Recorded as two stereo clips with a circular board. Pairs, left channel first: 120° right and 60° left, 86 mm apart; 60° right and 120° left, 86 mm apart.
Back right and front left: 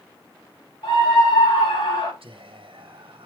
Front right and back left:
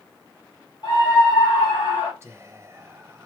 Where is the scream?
105° right, 5 m; by 2.1 s 120° right, 6 m.